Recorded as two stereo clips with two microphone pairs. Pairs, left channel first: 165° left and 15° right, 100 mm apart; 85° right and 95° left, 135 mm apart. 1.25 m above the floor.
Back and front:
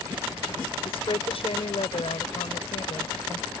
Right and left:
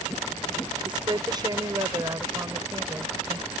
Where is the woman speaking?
145° left; by 3.5 s 160° left.